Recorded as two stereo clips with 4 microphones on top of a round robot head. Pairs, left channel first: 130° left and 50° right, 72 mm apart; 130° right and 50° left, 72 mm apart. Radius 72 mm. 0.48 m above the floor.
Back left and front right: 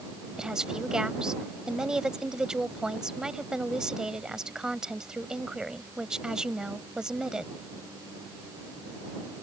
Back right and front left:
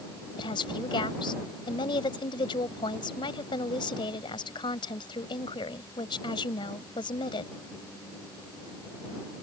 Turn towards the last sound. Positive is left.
turn(degrees=-130)